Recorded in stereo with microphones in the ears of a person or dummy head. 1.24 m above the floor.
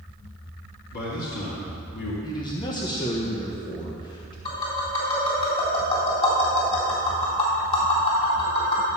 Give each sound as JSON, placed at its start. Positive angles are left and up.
{"t": 0.9, "sound": "a man speaking", "side_deg": 60, "distance_m": 2.0}
{"t": 2.2, "sound": "a man speaking", "side_deg": 20, "distance_m": 1.3}
{"t": 4.5, "sound": "tapping", "side_deg": 35, "distance_m": 3.5}